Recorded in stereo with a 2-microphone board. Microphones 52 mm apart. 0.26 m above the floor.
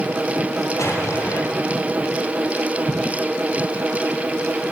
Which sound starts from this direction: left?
An explosion, at 0.8 s.